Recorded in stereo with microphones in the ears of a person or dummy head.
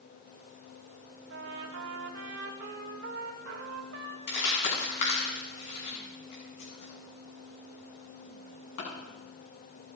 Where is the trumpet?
60° right (ahead or behind), 1.9 m.